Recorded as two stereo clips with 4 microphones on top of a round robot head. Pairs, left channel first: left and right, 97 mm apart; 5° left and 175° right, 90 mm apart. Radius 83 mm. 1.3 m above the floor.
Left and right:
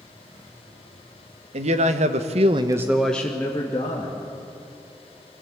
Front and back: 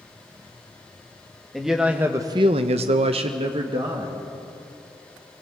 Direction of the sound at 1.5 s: 85° right.